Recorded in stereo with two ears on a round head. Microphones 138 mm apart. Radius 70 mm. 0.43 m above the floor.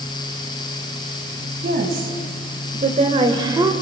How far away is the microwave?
No microwave in this recording.